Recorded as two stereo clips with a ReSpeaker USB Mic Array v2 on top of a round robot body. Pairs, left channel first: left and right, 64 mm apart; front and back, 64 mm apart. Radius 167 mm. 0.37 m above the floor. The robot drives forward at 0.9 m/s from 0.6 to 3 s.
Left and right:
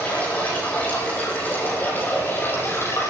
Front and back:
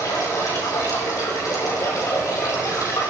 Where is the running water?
20° left, 5.5 m; by 3.1 s 35° left, 4 m.